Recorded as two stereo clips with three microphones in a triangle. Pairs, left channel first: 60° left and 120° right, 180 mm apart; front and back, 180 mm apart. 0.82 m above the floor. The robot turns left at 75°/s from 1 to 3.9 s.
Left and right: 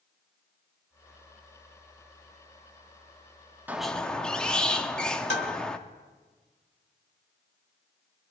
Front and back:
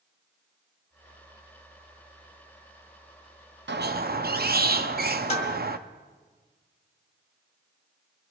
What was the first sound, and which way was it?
A squeak, 160° left.